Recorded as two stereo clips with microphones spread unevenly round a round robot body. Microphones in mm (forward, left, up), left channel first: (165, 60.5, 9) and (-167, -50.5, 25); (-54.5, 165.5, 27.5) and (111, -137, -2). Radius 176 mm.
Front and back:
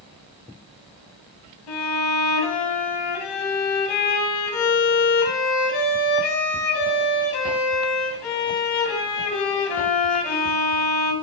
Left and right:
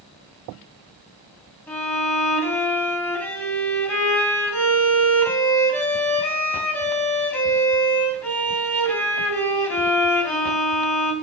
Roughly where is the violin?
Ahead left.